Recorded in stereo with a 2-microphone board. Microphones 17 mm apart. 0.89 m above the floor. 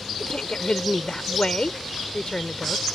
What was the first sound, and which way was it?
A woman speaking, 45° left (ahead or behind).